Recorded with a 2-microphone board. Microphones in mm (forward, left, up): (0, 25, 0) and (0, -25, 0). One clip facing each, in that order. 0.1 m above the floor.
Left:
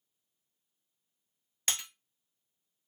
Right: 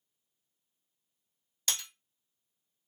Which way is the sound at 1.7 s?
45° left (ahead or behind).